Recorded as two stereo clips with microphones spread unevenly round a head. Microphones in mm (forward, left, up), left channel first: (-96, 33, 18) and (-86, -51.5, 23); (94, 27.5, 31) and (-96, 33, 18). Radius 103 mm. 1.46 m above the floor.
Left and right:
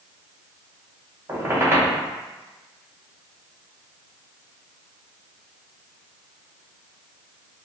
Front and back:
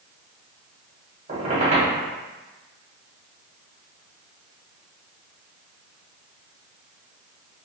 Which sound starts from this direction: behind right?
A squeak, at 1.3 s.